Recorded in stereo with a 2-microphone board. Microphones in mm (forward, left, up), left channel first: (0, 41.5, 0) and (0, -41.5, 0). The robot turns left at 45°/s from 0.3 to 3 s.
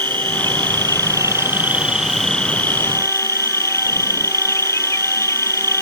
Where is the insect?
100° right; by 5.8 s 140° left.